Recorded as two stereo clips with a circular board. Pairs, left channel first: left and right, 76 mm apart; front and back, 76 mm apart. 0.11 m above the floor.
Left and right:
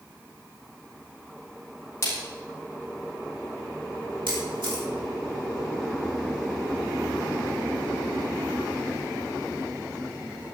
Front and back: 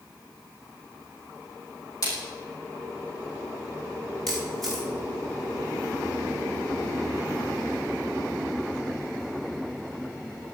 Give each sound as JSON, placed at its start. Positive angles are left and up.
{"t": 2.0, "sound": "a splash", "azimuth_deg": 40, "distance_m": 7.5}
{"t": 4.3, "sound": "a camera shutter", "azimuth_deg": -85, "distance_m": 6.0}